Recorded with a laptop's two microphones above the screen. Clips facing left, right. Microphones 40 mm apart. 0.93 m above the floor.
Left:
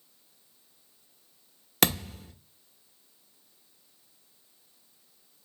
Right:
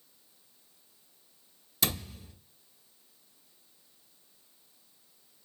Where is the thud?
70° left (ahead or behind), 0.9 m.